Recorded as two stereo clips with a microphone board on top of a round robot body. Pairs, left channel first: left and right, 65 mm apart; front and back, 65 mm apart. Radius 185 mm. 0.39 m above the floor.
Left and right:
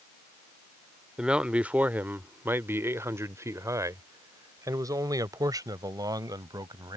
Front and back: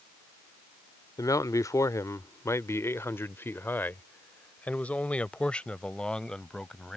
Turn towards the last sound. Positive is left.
turn(degrees=-80)